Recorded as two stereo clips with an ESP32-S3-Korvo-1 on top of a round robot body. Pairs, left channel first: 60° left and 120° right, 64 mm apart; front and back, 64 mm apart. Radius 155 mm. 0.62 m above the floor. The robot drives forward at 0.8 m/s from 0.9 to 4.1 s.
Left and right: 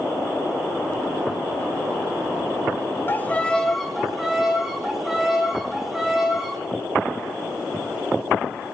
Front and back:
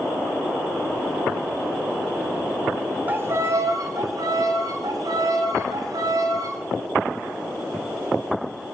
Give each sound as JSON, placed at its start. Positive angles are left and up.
{"t": 3.1, "sound": "a violin", "azimuth_deg": 120, "distance_m": 0.6}